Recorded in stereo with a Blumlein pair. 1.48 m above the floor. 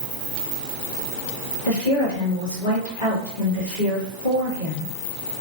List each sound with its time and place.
1.6 s a woman speaking: 65° left, 2 m